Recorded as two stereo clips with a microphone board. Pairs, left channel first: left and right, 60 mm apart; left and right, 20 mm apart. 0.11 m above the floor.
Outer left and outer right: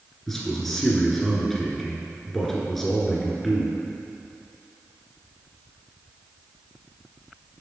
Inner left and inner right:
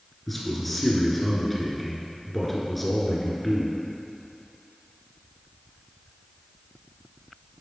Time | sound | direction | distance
0.3 | a man speaking | 5° left (ahead or behind) | 1.5 m